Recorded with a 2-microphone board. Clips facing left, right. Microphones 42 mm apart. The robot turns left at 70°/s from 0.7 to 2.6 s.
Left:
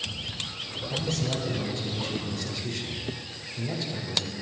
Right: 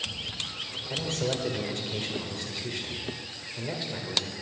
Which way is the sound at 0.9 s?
35° right.